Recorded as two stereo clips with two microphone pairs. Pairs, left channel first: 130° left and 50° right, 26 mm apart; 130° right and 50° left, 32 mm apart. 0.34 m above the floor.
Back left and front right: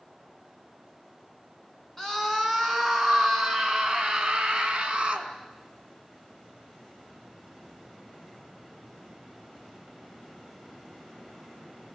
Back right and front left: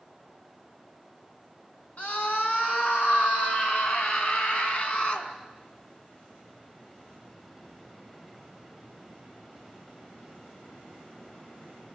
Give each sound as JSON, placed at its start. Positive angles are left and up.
{"t": 2.0, "sound": "a scream", "azimuth_deg": -150, "distance_m": 4.5}